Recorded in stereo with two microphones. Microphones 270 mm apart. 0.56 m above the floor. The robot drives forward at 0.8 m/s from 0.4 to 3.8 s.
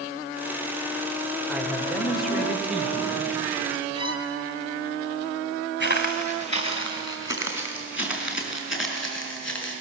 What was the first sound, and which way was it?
A man speaking, centre (ahead or behind).